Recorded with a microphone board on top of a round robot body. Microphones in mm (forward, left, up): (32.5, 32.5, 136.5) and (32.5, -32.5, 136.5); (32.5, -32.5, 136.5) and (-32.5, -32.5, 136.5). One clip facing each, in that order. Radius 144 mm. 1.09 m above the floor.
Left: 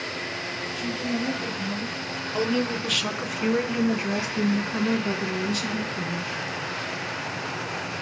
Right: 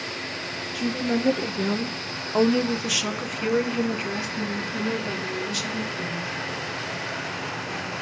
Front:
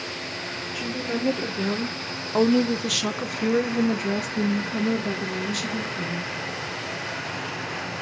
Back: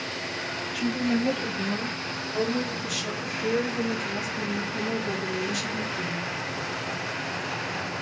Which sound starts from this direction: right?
A woman speaking, at 0.7 s.